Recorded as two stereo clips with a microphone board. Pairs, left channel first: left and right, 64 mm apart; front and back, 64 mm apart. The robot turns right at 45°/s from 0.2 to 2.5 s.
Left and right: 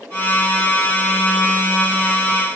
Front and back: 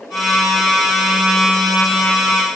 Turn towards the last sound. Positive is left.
No sound to turn to.